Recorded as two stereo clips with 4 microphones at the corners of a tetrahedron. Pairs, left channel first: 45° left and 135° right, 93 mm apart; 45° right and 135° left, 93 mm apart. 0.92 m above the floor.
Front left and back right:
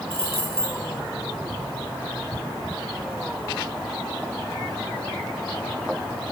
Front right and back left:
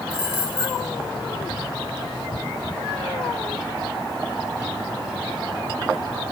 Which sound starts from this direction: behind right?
Keys jangling, at 0.1 s.